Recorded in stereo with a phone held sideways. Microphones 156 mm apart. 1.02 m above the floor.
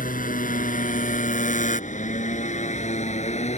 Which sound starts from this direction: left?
A motorcycle, at 0.0 s.